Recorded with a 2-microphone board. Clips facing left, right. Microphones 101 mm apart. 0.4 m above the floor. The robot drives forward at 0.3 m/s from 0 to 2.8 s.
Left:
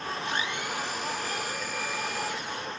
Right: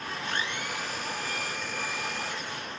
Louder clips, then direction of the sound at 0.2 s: Even; 5° left (ahead or behind).